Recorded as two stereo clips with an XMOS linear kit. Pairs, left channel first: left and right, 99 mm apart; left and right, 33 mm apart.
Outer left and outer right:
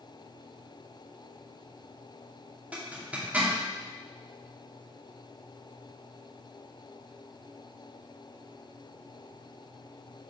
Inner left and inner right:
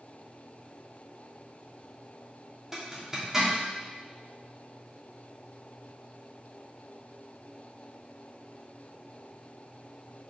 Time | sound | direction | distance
2.7 | a zipper | 15° right (ahead or behind) | 2.5 m